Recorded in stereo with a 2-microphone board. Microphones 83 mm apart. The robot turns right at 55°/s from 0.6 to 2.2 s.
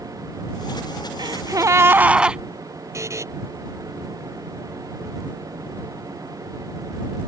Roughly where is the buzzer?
Right.